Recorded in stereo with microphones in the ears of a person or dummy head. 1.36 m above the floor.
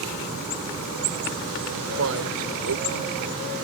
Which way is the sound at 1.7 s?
75° right (ahead or behind).